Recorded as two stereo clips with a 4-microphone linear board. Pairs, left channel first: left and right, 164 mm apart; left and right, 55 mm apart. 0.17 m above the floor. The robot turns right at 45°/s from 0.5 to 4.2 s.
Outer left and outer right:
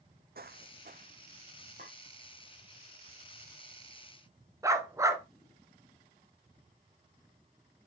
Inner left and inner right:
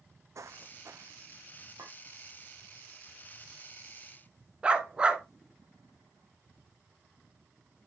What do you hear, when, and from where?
0.3 s footsteps: 70° right (ahead or behind), 0.5 m; by 1.7 s 30° right (ahead or behind), 1.4 m
1.8 s a clink: 65° right (ahead or behind), 3.5 m; by 1.9 s 70° right (ahead or behind), 3.5 m
4.6 s a dog barking: 20° right (ahead or behind), 0.9 m